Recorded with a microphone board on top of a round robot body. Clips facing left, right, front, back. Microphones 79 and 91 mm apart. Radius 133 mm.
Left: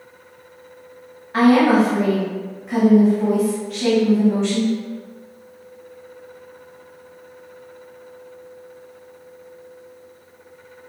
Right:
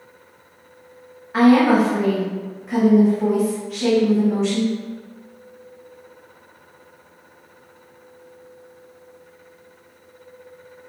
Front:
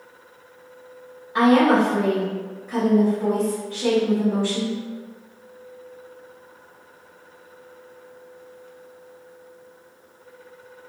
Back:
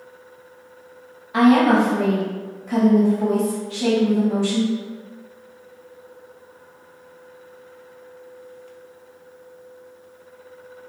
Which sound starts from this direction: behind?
A woman speaking, at 1.3 s.